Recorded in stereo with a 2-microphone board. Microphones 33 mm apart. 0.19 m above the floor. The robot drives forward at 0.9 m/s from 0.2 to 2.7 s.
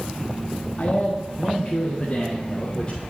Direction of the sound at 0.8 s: 40° left (ahead or behind).